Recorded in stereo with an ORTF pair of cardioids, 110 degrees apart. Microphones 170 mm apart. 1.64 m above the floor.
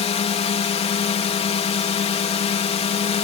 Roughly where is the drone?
Ahead left.